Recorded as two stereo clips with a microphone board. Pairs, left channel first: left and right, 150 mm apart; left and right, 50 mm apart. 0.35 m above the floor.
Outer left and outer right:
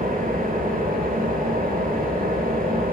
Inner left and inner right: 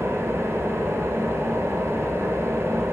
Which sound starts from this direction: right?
An engine running, at 0.0 s.